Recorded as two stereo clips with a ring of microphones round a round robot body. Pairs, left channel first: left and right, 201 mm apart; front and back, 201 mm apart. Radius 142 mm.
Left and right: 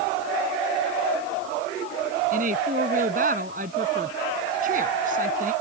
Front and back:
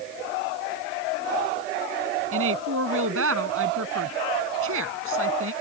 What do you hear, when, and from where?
2.3 s a woman speaking: 150° right